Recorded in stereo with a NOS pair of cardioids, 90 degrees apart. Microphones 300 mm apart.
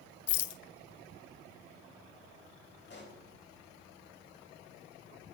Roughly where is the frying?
No frying in this recording.